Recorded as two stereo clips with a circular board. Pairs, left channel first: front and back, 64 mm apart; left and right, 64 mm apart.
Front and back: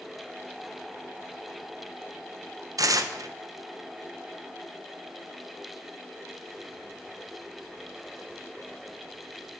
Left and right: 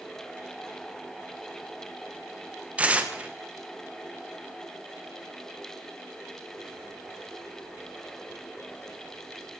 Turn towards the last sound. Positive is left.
turn(degrees=-160)